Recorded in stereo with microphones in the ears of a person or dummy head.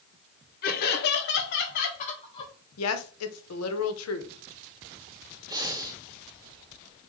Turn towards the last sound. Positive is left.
turn(degrees=-20)  # may be behind; listen again after turning